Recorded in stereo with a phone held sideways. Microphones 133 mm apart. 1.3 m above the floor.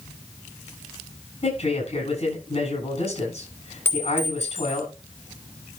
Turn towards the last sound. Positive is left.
turn(degrees=20)  # may be behind; listen again after turning